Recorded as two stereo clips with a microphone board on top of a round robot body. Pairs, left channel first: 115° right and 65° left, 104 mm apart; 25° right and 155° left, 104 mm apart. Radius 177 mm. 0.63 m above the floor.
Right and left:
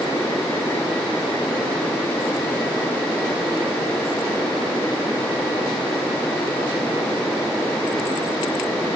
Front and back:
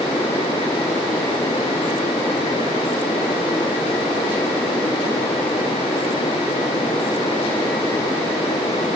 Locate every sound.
Only background noise.